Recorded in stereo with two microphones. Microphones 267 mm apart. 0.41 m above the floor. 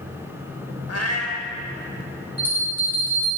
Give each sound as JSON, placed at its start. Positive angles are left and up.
{"t": 0.9, "sound": "a cat meowing", "side_deg": 65, "distance_m": 0.7}
{"t": 2.4, "sound": "a bell", "side_deg": 5, "distance_m": 3.0}